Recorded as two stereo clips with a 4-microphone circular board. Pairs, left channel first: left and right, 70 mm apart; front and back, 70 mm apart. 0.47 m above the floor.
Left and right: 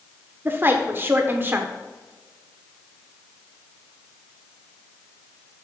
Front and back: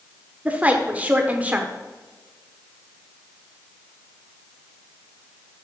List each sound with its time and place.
0.5 s a woman speaking: 125° right, 0.9 m